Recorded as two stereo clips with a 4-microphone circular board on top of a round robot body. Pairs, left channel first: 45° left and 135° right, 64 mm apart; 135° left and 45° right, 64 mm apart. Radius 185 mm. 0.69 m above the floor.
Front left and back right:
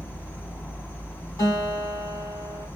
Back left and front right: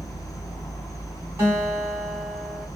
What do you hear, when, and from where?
0.0 s an insect: 105° left, 0.9 m
1.4 s a guitar: 15° left, 3 m